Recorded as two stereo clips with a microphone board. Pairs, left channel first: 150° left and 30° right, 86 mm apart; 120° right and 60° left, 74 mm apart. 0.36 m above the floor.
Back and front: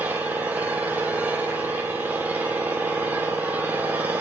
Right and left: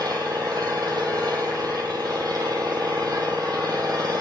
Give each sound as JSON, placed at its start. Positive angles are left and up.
{"t": 0.0, "sound": "an engine running", "azimuth_deg": 40, "distance_m": 4.5}